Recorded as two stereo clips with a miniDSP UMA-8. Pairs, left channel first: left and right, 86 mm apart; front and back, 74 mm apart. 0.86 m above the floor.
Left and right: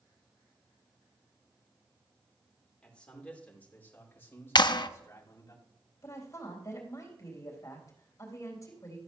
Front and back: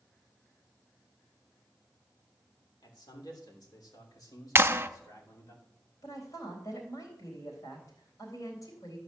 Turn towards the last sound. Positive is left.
turn(degrees=40)